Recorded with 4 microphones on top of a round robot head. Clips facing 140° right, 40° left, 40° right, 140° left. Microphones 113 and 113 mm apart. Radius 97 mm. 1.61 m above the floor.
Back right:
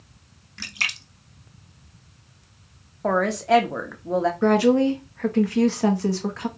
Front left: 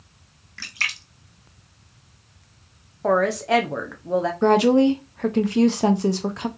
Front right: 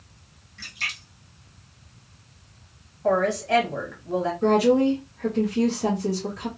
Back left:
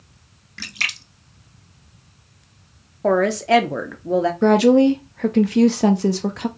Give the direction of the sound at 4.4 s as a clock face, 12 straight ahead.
8 o'clock.